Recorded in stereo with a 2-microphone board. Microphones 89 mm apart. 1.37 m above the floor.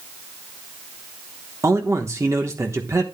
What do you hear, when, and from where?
1.6 s a man speaking: 35° right (ahead or behind), 1.2 m